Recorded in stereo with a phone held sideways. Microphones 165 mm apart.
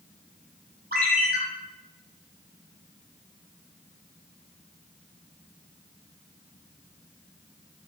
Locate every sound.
0.9 s a ringtone: 65° right (ahead or behind), 1.0 m